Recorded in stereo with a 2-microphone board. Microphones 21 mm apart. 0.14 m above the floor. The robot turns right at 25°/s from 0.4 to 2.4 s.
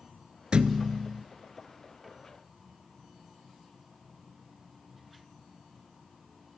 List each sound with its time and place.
0.5 s a thud: 55° right (ahead or behind), 0.7 m; by 1.2 s 45° right (ahead or behind), 0.7 m